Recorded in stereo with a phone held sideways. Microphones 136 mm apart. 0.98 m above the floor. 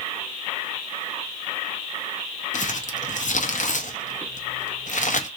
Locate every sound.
2.5 s crumpling: 65° left (ahead or behind), 0.6 m